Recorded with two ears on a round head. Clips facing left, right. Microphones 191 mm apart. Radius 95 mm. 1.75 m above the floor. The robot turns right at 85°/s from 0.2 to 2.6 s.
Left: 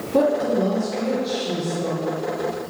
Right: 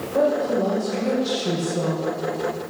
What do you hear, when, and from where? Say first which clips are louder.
0.1 s a woman speaking: left 1 dB; 130° left, 1.9 m; by 2.2 s 65° right, 1.9 m